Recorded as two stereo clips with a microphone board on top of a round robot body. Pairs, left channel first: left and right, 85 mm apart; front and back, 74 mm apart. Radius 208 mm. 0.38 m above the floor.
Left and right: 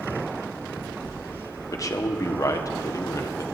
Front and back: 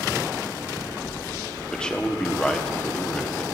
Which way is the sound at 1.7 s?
75° left.